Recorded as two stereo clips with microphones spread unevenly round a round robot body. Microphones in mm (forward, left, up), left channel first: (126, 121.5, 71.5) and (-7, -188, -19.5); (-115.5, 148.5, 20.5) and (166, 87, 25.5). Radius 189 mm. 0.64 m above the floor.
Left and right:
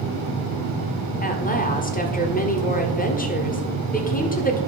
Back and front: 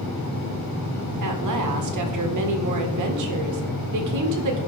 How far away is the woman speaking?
About 1.9 m.